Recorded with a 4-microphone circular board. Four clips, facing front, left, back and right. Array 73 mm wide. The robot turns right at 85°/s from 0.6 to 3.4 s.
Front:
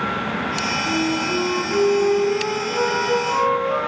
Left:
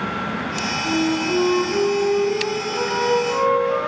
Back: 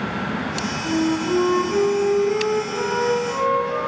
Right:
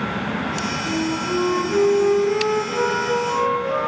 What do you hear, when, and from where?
0.8 s a flute: 140° left, 1.0 m; by 3.9 s 5° right, 1.0 m